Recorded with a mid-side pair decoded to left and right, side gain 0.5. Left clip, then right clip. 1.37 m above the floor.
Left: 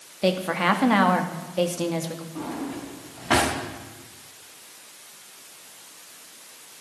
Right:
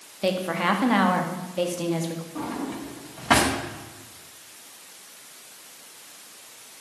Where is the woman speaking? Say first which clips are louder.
Left 2 dB; 20° left, 2.5 m.